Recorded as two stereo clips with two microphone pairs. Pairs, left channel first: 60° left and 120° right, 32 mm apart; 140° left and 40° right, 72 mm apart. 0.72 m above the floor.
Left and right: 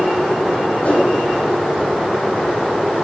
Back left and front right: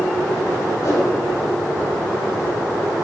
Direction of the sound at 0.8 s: 105° left.